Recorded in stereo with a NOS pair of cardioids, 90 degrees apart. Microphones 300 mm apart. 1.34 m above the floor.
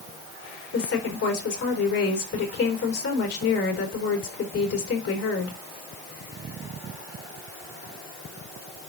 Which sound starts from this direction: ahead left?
A woman speaking, at 0.7 s.